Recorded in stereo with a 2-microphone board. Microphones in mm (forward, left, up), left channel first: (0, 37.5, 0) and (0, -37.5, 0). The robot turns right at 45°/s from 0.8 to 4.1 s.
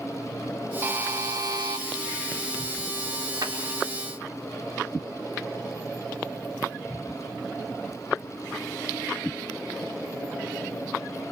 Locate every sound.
0.8 s a buzzer: 145° right, 0.8 m; by 1.8 s 100° right, 0.8 m
3.4 s a clap: 60° right (ahead or behind), 4.5 m; by 3.5 s 55° right (ahead or behind), 4.5 m